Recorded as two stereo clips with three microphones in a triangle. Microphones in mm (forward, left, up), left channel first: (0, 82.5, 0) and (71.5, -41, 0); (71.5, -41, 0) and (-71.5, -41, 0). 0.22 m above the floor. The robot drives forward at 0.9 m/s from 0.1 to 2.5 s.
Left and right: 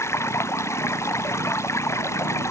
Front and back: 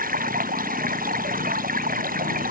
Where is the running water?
170° right.